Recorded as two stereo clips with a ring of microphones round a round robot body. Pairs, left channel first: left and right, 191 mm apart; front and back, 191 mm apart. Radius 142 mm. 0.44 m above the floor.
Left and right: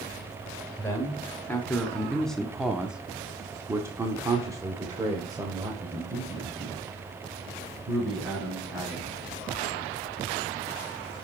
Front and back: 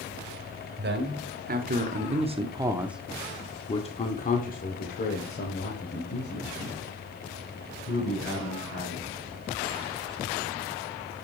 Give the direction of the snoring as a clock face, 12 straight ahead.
No snoring in this recording.